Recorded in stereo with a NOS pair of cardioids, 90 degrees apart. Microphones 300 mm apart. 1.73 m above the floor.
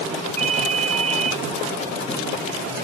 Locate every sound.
0.4 s a ringtone: 25° right